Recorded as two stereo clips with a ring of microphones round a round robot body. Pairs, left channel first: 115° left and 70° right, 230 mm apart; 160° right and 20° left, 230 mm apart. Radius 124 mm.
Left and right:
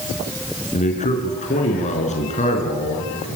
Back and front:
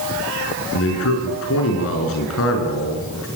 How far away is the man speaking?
About 5.5 m.